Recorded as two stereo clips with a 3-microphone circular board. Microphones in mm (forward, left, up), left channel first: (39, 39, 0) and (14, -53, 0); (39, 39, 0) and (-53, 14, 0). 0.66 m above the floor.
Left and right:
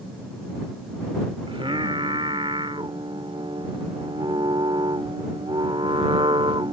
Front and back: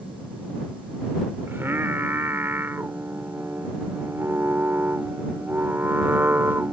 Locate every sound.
1.5 s singing: 100° right